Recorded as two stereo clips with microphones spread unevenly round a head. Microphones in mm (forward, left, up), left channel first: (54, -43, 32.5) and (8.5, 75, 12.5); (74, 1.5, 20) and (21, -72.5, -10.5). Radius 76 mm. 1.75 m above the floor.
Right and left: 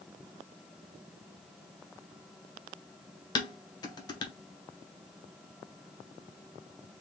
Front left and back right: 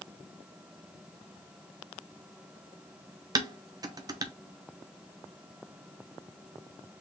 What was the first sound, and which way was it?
Dishes clattering, 80° right.